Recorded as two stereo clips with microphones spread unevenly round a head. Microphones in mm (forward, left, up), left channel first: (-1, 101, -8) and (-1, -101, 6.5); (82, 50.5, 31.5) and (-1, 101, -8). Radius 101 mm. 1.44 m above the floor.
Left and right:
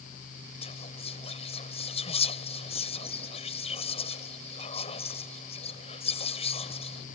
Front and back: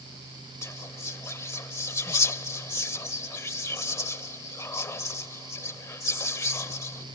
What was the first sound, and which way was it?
Whispering, 25° left.